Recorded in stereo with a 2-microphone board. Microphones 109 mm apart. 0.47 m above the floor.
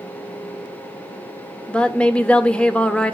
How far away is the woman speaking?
About 1.0 m.